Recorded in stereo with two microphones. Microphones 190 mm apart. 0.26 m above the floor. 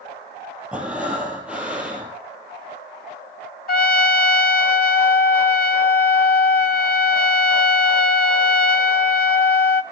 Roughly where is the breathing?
Centre.